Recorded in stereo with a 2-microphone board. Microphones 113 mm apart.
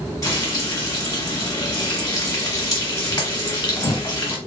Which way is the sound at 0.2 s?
35° left (ahead or behind).